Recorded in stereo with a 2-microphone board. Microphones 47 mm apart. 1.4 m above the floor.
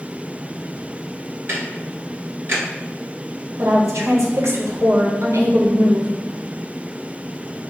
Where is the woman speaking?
75° right (ahead or behind), 1.1 m.